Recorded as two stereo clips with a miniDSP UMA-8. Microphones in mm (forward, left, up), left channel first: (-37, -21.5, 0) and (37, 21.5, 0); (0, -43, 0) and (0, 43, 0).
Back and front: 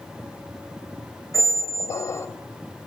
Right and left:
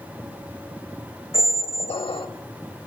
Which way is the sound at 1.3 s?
95° right.